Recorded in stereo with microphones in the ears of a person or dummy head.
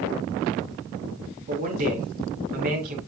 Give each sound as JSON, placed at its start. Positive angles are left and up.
{"t": 1.5, "sound": "a man speaking", "side_deg": -55, "distance_m": 4.0}